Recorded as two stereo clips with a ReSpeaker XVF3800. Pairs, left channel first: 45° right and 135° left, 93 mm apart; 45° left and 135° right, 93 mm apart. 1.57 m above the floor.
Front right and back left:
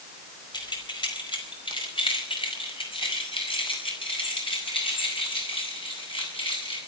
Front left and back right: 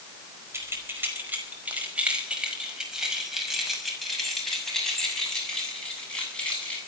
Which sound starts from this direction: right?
Keys jangling, at 0.5 s.